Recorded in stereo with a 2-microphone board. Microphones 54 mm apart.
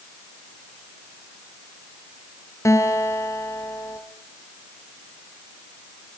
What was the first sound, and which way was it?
A guitar, 70° left (ahead or behind).